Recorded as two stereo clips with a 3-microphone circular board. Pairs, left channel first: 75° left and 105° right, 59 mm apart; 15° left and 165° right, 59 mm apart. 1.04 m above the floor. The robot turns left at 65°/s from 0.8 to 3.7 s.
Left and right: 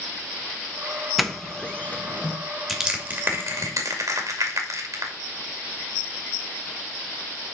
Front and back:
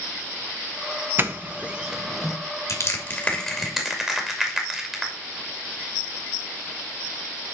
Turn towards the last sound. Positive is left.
turn(degrees=-80)